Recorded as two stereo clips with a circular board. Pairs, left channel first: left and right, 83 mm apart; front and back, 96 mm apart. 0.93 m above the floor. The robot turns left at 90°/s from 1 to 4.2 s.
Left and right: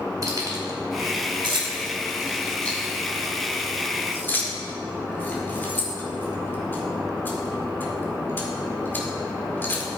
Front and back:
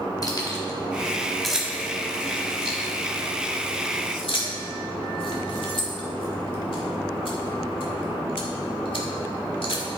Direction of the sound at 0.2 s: 45° right.